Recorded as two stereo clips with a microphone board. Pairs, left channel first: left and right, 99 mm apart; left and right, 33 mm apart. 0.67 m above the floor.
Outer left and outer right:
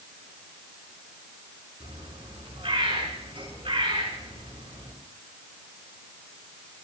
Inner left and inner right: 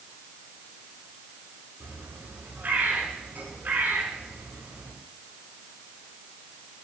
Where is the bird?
80° right, 6 m.